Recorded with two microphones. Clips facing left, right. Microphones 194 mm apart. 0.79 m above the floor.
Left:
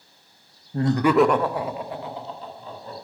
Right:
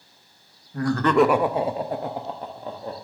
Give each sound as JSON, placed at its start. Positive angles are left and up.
{"t": 0.7, "sound": "laughter", "side_deg": 30, "distance_m": 0.5}